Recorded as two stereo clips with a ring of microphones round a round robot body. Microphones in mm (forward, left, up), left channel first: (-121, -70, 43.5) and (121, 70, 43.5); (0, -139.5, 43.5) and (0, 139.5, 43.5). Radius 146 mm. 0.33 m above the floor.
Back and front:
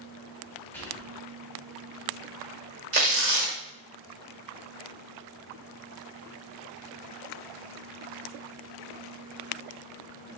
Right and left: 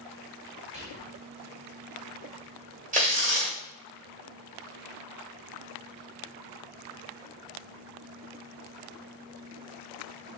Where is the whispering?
135° left, 1.5 m.